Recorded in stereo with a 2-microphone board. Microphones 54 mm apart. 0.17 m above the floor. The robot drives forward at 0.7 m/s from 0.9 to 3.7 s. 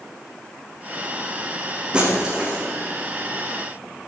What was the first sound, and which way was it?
Breaking glass, 20° right (ahead or behind).